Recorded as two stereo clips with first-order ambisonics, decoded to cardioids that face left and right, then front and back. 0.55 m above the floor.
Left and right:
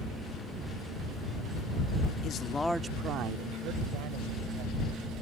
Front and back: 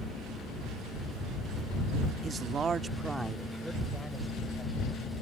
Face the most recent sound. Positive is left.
turn(degrees=-85)